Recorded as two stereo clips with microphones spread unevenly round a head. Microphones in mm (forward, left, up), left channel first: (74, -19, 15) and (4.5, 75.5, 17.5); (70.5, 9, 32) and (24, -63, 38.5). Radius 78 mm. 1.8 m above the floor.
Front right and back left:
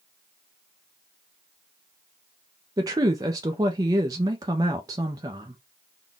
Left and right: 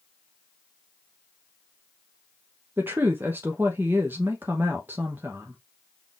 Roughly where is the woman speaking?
Behind.